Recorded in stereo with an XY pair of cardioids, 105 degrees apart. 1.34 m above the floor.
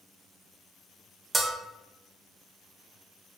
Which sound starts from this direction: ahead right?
A bell, at 1.3 s.